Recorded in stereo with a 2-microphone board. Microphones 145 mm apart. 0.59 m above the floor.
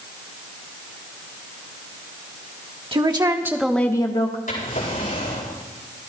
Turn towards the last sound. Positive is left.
turn(degrees=75)  # may be behind; listen again after turning